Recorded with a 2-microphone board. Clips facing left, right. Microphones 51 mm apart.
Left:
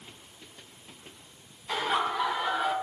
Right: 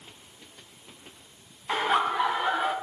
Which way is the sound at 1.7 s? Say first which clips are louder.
Right 3 dB; 25° right (ahead or behind).